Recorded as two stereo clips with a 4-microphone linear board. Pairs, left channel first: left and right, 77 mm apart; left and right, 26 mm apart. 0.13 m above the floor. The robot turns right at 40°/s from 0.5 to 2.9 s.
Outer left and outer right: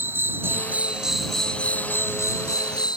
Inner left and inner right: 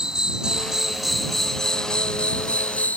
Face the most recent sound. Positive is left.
turn(degrees=65)